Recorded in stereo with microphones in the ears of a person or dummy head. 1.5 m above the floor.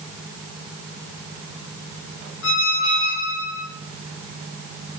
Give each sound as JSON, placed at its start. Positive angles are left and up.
{"t": 2.4, "sound": "a squeak", "side_deg": 70, "distance_m": 1.9}